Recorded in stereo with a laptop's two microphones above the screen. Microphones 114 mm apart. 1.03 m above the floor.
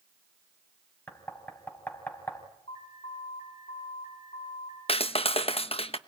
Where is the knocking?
20° left (ahead or behind), 5.5 m.